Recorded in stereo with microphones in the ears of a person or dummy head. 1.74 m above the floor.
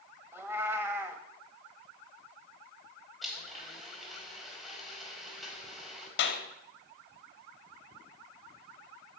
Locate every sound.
0.3 s a cat meowing: 20° right (ahead or behind), 2.0 m
3.2 s a blender: 5° right (ahead or behind), 5 m
6.2 s a clap: 60° left (ahead or behind), 3 m